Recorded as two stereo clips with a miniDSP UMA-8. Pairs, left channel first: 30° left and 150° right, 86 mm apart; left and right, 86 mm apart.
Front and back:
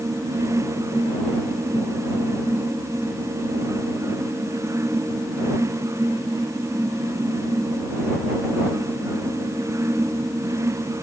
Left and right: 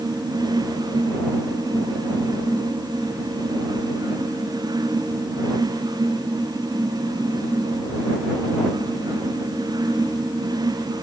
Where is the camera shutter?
No camera shutter in this recording.